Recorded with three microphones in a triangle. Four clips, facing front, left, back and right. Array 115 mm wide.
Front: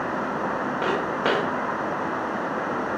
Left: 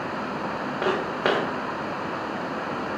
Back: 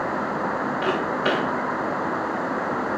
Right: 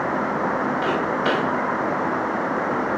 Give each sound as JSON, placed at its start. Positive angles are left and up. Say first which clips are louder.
{"t": 0.8, "sound": "footsteps", "louder": "right 3 dB, even", "azimuth_deg": 65, "distance_m": 5.0}